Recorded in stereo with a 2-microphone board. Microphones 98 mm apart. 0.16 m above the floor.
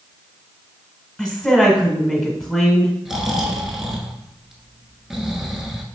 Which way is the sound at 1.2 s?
5° left (ahead or behind).